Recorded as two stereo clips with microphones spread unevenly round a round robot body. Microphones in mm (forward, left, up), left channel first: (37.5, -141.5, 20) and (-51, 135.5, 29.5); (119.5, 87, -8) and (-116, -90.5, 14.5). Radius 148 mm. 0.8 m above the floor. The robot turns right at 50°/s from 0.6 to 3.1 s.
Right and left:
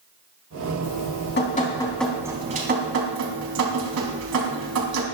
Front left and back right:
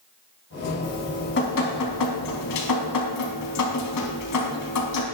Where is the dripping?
45° right, 4 m; by 5.0 s 70° left, 4 m.